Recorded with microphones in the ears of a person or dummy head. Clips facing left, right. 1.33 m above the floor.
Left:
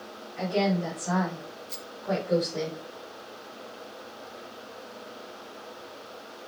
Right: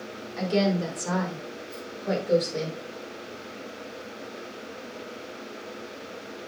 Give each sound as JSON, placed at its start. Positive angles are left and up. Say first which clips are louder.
{"t": 0.4, "sound": "a woman speaking", "louder": "right 2 dB", "side_deg": -85, "distance_m": 3.5}
{"t": 1.7, "sound": "a rattle", "louder": "right 5 dB", "side_deg": 55, "distance_m": 1.6}